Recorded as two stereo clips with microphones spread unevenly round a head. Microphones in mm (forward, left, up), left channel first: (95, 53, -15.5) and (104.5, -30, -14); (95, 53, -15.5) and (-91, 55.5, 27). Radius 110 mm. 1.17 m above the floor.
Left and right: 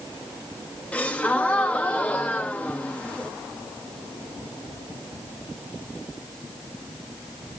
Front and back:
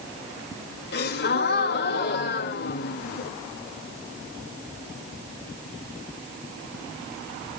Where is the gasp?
25° left, 2 m.